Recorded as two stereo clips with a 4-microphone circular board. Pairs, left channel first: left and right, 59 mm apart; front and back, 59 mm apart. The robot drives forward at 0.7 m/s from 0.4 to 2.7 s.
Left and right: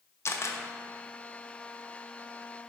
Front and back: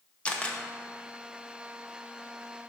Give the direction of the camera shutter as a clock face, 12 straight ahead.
10 o'clock.